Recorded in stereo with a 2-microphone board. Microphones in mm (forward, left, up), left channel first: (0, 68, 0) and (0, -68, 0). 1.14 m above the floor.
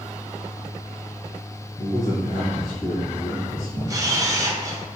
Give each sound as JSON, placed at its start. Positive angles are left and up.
{"t": 1.8, "sound": "a man speaking", "side_deg": 70, "distance_m": 1.3}
{"t": 3.9, "sound": "a camera shutter", "side_deg": -25, "distance_m": 0.6}